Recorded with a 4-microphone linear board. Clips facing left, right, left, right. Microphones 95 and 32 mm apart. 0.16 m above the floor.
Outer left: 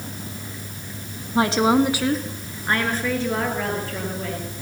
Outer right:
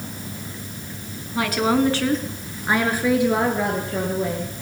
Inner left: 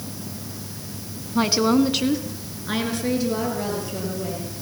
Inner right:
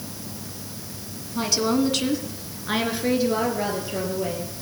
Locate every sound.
1.4 s a woman speaking: 30° left (ahead or behind), 1.2 m; by 4.5 s 25° right (ahead or behind), 3.5 m